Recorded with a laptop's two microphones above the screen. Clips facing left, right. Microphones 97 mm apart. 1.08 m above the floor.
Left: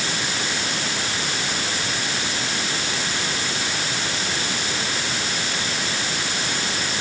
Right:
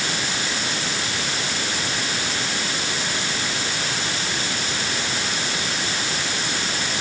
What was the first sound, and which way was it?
Only background noise.